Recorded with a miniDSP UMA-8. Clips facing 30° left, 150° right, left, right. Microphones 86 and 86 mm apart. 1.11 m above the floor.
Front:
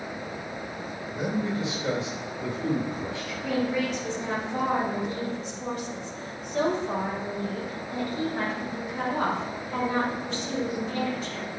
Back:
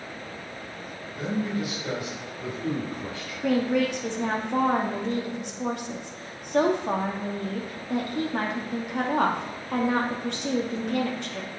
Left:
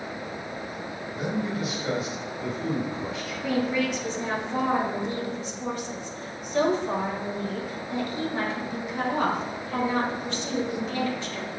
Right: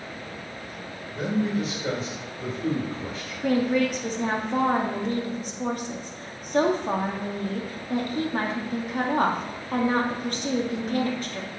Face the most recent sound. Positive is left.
turn(degrees=-130)